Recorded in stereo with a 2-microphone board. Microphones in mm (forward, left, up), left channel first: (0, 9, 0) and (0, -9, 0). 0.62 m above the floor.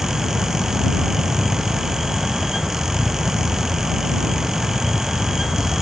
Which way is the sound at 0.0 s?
60° left (ahead or behind).